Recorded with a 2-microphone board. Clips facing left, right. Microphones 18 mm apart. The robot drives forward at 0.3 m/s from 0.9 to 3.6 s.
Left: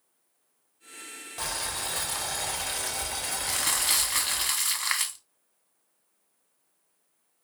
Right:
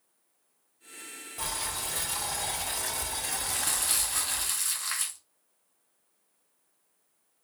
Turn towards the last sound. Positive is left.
turn(degrees=75)  # may be behind; listen again after turning